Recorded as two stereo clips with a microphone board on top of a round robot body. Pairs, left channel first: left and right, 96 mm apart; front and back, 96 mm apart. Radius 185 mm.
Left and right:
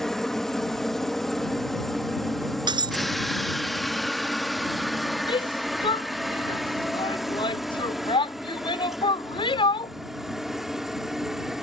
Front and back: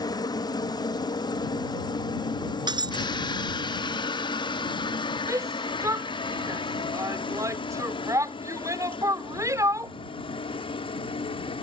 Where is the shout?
120° left.